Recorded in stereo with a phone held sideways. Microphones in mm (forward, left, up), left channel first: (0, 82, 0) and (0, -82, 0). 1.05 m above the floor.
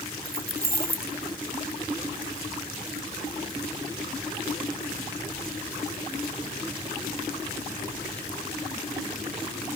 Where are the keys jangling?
65° right (ahead or behind), 1.0 m.